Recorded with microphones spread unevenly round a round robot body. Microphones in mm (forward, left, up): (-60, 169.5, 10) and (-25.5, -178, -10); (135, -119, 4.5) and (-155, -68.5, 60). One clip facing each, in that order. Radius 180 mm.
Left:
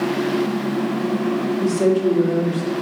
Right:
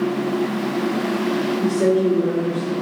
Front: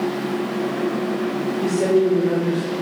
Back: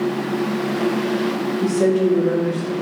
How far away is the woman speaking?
About 0.8 m.